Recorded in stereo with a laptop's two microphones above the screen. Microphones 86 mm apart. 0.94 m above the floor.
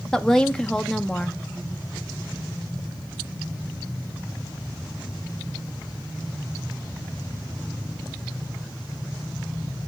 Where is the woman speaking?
5° left (ahead or behind), 0.6 m.